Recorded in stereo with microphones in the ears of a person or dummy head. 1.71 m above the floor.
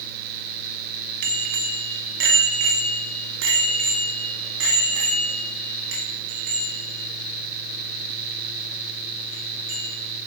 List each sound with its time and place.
1.2 s a bicycle bell: 55° right (ahead or behind), 2.5 m; by 9.9 s 65° right (ahead or behind), 6.5 m